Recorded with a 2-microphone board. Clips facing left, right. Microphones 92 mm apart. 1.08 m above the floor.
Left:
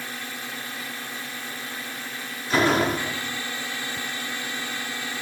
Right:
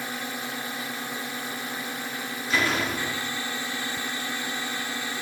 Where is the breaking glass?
I don't hear breaking glass.